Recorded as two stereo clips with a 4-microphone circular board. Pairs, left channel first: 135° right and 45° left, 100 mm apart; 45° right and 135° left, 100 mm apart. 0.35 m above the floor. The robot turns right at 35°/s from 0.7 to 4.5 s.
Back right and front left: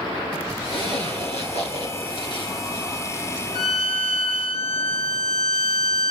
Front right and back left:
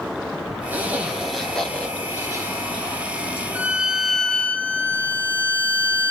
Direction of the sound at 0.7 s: 155° right.